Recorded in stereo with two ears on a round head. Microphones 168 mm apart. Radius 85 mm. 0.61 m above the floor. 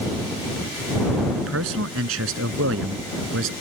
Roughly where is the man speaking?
Right.